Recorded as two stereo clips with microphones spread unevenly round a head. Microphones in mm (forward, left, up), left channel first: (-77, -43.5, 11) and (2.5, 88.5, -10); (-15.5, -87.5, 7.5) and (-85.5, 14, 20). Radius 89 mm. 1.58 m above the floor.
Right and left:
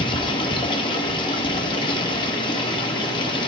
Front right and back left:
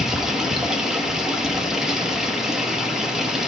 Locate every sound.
0.0 s running water: 155° right, 1.2 m